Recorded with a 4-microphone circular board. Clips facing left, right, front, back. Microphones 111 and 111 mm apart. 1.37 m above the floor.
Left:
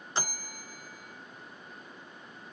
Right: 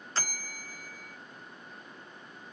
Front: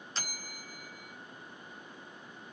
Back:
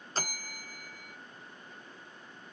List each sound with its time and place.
0.1 s a bell: 155° left, 0.9 m